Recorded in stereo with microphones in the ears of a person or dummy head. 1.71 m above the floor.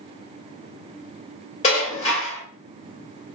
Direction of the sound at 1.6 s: 40° left (ahead or behind).